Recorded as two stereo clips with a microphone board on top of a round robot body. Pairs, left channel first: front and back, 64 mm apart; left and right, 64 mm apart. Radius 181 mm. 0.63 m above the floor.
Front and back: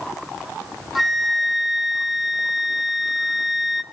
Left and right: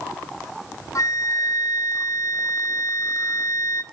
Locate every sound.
0.9 s a flute: 90° left, 0.8 m